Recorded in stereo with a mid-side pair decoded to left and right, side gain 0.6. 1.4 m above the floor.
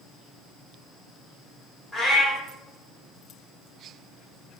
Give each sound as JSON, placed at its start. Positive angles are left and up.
{"t": 1.9, "sound": "a cat meowing", "azimuth_deg": 20, "distance_m": 1.9}